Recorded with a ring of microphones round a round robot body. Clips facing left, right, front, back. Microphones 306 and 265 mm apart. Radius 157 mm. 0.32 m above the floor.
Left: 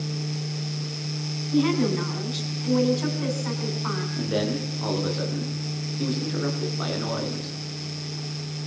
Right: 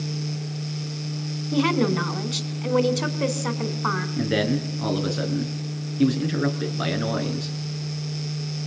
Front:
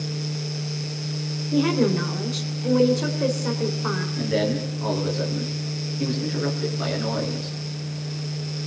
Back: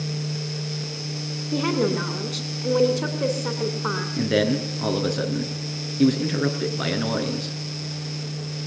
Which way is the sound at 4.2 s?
135° right.